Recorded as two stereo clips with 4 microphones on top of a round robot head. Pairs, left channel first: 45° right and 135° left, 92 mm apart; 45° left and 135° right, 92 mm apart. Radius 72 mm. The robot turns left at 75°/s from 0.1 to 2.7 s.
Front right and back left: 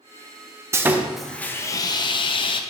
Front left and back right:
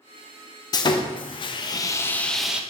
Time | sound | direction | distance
0.7 | sawing | 80° left | 0.6 m